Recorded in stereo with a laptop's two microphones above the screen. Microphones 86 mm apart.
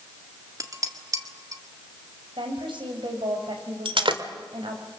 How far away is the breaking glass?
About 1.8 m.